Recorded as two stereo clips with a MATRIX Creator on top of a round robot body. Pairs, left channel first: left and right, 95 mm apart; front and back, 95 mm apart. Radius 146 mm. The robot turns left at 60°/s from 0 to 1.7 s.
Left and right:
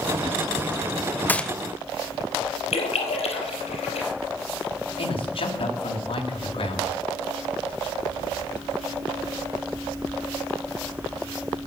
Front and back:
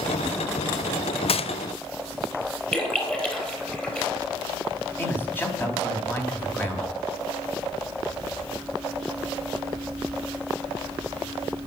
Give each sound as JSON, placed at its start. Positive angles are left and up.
{"t": 1.3, "sound": "a gunshot", "azimuth_deg": 15, "distance_m": 0.8}
{"t": 2.7, "sound": "a splash", "azimuth_deg": 80, "distance_m": 3.5}
{"t": 5.0, "sound": "a man speaking", "azimuth_deg": 70, "distance_m": 3.0}